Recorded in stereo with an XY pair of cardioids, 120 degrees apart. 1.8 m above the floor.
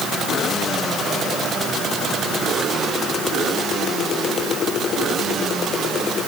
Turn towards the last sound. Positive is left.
No sound to turn to.